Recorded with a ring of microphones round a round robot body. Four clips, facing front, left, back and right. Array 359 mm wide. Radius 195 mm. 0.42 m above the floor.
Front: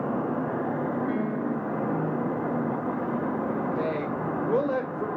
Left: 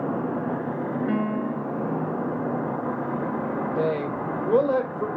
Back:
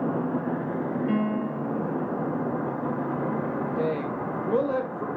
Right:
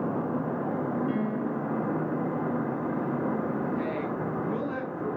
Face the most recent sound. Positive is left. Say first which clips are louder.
# left 5 dB, back 1 dB
turn(degrees=85)